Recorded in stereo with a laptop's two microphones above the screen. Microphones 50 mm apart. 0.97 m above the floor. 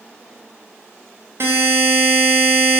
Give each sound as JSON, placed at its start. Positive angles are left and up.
{"t": 1.4, "sound": "a buzzer", "side_deg": -60, "distance_m": 0.5}